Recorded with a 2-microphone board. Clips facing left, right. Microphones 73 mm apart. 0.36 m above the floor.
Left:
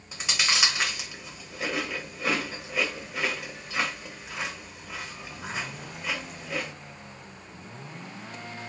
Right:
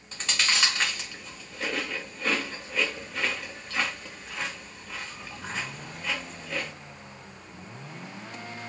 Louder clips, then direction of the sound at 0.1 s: Even; 10° left (ahead or behind).